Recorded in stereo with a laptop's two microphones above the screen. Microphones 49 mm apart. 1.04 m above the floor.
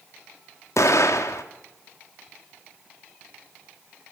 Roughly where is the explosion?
Left.